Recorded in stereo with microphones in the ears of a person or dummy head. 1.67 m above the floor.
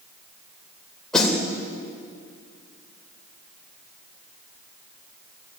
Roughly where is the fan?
No fan in this recording.